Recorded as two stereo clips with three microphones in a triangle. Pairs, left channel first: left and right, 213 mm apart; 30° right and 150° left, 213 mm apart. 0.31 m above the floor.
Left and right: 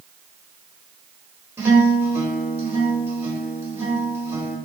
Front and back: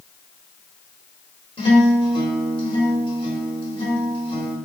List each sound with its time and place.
1.6 s a guitar: 25° right, 1.4 m